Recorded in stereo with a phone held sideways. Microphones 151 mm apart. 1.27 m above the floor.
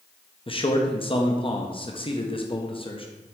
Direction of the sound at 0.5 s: 35° left (ahead or behind).